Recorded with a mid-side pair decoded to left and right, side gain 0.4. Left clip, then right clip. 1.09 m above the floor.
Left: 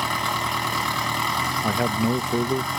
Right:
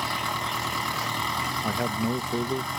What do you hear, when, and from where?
0.0 s an engine running: 35° left
1.6 s a man speaking: 35° left